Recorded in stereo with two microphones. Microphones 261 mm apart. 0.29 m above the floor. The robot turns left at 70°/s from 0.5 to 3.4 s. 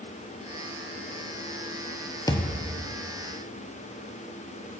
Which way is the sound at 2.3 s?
15° left.